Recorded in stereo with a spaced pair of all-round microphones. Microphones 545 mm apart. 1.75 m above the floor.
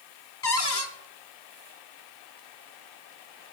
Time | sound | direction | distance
0.4 | a cupboard door | 45° left (ahead or behind) | 0.9 m